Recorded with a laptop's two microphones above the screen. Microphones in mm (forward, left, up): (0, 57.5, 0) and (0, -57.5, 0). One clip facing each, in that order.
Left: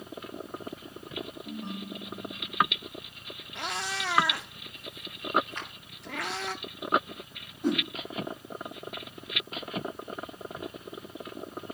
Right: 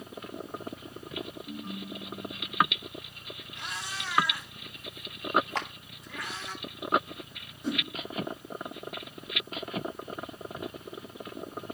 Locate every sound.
1.4 s a ringtone: 75° left (ahead or behind), 2.5 m
3.5 s a cat meowing: 65° left (ahead or behind), 1.0 m
5.5 s a clap: 80° right, 1.4 m
7.6 s a whoosh: 50° left (ahead or behind), 8.5 m